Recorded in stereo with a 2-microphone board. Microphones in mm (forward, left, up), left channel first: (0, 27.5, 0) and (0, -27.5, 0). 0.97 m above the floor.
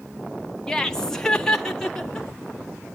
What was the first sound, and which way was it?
Laughter, 10° left (ahead or behind).